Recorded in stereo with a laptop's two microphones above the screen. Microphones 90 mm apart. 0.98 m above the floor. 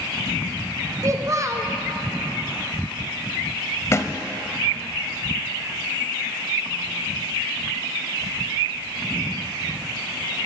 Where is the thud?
35° left (ahead or behind), 1.1 m.